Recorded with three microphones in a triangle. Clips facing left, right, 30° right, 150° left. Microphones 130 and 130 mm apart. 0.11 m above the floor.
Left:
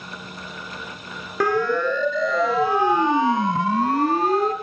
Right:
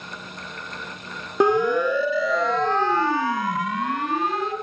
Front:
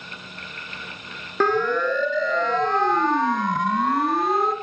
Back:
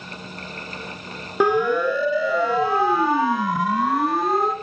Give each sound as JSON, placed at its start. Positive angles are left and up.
{"t": 1.4, "sound": "a siren", "azimuth_deg": -140, "distance_m": 2.5}